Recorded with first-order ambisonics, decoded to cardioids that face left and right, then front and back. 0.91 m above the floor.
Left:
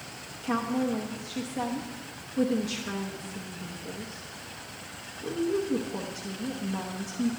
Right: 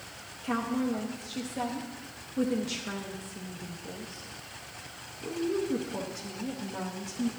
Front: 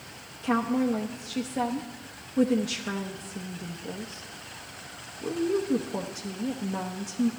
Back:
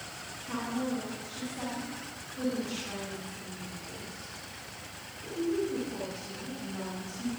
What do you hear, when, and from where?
0.4 s a woman speaking: straight ahead, 0.9 m